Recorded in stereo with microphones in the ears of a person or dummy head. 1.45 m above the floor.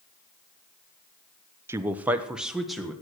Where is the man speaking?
10° right (ahead or behind), 0.8 m; by 2.9 s centre (ahead or behind), 1.6 m.